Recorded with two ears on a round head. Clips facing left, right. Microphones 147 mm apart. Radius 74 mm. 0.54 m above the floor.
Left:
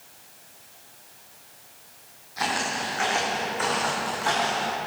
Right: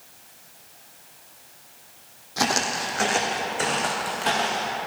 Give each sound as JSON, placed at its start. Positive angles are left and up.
{"t": 2.4, "sound": "footsteps", "side_deg": -55, "distance_m": 1.7}